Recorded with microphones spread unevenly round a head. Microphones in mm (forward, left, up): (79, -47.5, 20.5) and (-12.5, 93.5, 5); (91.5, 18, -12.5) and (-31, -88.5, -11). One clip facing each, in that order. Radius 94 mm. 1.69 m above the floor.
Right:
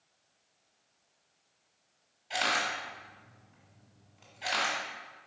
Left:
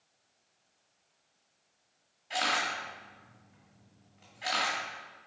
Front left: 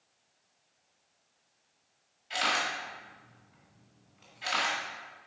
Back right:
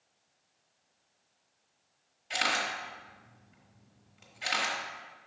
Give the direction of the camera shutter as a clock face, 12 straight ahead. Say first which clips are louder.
Even, front left 1 dB; 5 o'clock.